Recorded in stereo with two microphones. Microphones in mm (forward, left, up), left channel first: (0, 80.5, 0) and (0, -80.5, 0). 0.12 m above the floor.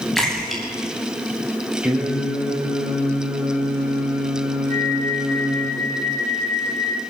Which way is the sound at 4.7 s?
55° right (ahead or behind).